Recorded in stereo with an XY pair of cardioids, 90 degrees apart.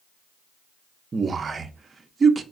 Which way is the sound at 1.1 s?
40° right.